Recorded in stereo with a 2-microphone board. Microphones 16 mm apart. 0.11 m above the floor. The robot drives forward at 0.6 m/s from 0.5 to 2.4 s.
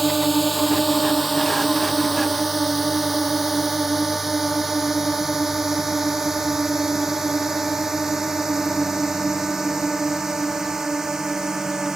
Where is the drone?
Centre (ahead or behind); by 12.0 s 40° right (ahead or behind).